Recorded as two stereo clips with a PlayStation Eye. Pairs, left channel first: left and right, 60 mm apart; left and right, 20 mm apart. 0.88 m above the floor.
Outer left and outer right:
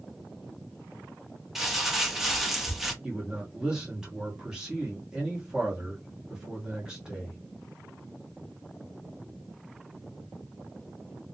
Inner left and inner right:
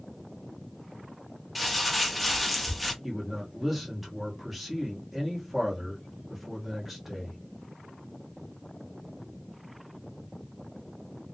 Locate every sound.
1.6 s crumpling: 5° right (ahead or behind), 0.6 m
3.0 s a man speaking: 10° right (ahead or behind), 1.0 m